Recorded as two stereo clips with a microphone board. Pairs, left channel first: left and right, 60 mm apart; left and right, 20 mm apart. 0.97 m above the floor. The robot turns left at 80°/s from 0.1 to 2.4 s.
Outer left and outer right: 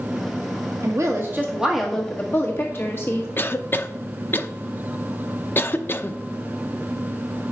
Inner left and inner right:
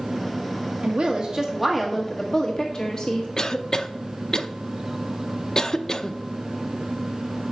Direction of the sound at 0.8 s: 100° right.